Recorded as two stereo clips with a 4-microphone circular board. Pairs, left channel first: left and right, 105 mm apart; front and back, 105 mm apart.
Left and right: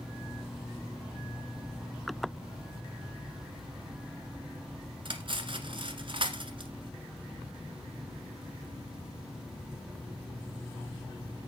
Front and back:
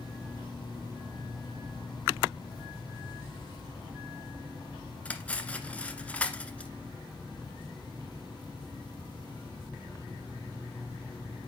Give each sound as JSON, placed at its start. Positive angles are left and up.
{"t": 5.0, "sound": "cutlery clinking", "azimuth_deg": -75, "distance_m": 1.3}